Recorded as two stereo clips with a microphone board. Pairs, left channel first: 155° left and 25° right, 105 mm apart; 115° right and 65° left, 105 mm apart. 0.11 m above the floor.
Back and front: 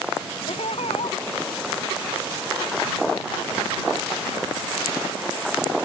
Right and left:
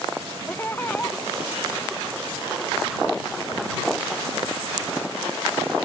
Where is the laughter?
175° left.